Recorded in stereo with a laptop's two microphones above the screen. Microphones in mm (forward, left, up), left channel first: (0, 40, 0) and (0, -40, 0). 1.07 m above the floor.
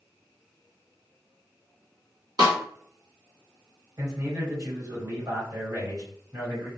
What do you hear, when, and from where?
2.4 s a snare drum: 50° right (ahead or behind), 1.0 m
4.0 s a man speaking: 45° right (ahead or behind), 1.5 m